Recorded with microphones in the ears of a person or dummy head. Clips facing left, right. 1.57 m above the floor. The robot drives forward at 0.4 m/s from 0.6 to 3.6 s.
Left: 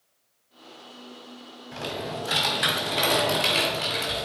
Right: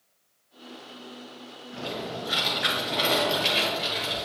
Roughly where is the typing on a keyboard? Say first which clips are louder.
Left 1 dB; left.